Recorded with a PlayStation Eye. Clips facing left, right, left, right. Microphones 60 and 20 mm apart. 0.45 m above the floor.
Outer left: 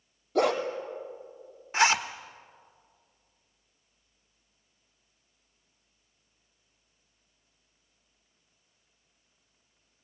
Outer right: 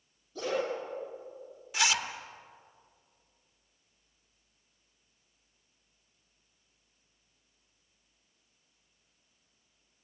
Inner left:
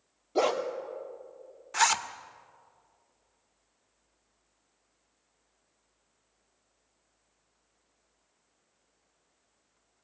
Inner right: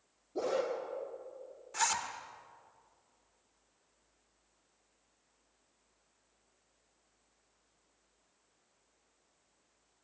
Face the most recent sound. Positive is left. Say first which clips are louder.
# outer left 6 dB, inner left 8 dB
turn(degrees=40)  # may be behind; listen again after turning